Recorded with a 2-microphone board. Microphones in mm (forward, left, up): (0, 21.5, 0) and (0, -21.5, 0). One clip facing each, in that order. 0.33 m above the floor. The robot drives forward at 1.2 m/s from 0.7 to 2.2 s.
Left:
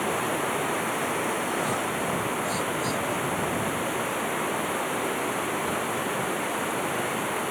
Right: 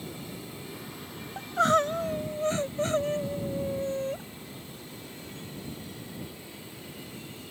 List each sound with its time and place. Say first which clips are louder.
0.0 s running water: left 15 dB; 80° left; by 7.5 s 75° left (ahead or behind)
1.4 s crying: right 3 dB; 85° right; by 4.2 s 45° right (ahead or behind)